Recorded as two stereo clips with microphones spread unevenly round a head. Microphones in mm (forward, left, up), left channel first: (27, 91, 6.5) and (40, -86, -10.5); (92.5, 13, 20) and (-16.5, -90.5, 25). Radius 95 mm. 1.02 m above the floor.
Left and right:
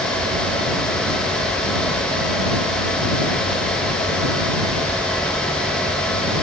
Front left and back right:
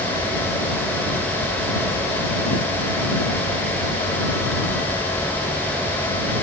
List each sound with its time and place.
Only background noise.